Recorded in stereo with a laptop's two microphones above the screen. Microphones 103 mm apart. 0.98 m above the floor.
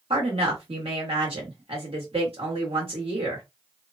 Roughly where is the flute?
No flute in this recording.